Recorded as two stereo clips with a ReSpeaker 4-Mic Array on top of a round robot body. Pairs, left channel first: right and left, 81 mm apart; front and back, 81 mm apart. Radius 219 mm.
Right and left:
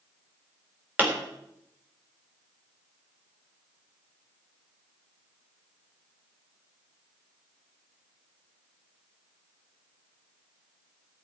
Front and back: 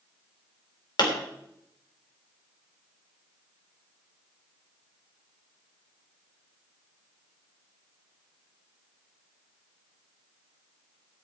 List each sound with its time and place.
1.0 s a pop: 25° left, 3.5 m